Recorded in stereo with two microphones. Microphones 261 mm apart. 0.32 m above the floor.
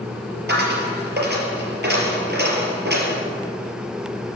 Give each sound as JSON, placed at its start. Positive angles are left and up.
{"t": 0.5, "sound": "a dropped coin", "side_deg": -40, "distance_m": 3.5}